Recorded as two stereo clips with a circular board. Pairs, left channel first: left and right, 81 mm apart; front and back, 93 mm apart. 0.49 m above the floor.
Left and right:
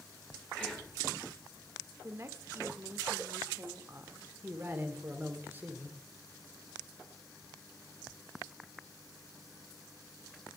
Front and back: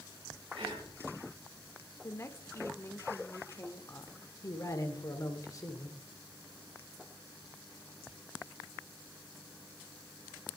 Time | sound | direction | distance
0.5 | whispering | 170° left | 4 m
2.0 | a woman speaking | 50° right | 1.1 m
4.4 | a man speaking | 35° right | 1.9 m